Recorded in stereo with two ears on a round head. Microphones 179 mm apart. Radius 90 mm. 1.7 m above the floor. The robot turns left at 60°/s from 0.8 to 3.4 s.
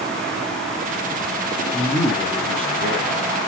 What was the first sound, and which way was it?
A man speaking, 25° left.